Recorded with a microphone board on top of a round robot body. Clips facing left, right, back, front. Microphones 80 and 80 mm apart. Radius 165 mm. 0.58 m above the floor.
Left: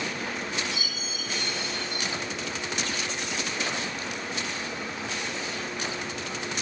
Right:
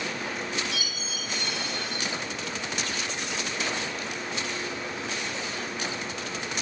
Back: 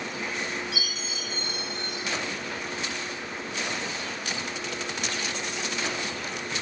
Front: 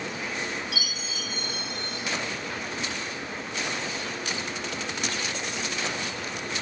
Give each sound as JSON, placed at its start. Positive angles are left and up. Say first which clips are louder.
{"t": 0.7, "sound": "a chime", "louder": "even, even", "azimuth_deg": -120, "distance_m": 4.5}